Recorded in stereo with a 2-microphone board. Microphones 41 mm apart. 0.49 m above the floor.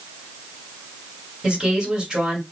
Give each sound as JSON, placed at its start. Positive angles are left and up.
{"t": 1.4, "sound": "a woman speaking", "side_deg": -15, "distance_m": 1.8}